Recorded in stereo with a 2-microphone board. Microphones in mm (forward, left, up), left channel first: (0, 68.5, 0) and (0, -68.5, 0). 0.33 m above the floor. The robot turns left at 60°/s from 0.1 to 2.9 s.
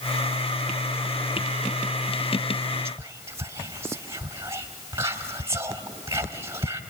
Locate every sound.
2.9 s whispering: 20° right (ahead or behind), 1.8 m